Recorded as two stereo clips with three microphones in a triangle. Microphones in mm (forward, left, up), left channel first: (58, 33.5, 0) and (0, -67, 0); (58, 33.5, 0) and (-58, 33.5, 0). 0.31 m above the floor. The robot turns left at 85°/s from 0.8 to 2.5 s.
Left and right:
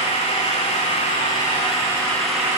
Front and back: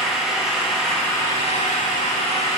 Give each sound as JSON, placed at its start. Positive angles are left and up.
{"t": 0.0, "sound": "an engine running", "azimuth_deg": 95, "distance_m": 8.5}